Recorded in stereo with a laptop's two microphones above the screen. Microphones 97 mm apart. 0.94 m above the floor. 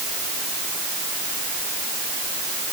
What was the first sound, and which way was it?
Only background noise.